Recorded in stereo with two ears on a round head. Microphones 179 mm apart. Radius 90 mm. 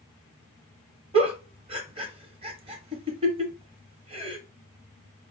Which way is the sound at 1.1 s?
30° right (ahead or behind).